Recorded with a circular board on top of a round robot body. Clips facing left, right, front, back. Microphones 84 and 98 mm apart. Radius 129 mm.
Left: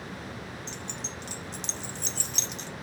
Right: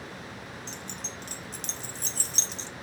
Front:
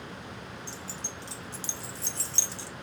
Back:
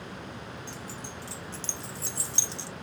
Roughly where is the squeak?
I don't hear a squeak.